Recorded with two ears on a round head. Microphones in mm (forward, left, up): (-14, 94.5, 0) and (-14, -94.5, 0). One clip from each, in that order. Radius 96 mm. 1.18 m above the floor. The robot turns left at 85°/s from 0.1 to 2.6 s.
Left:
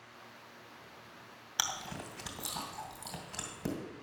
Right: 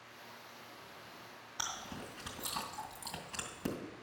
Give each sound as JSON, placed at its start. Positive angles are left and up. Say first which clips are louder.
{"t": 1.6, "sound": "chewing", "louder": "left 6 dB", "side_deg": 65, "distance_m": 2.0}